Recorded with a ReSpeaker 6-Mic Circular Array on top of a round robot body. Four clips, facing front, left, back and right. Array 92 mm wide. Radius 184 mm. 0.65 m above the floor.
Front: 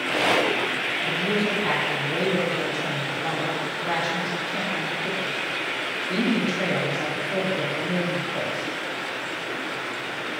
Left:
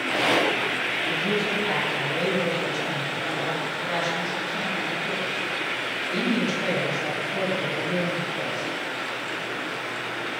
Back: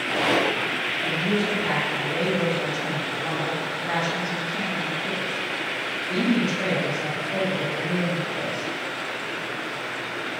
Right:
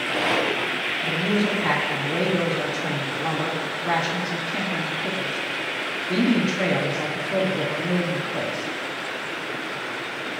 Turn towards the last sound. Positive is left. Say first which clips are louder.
# right 4 dB, even
turn(degrees=-80)